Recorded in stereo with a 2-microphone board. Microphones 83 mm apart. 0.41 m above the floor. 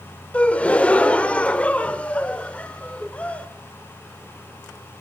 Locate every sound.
0.3 s a gasp: 15° left (ahead or behind), 0.5 m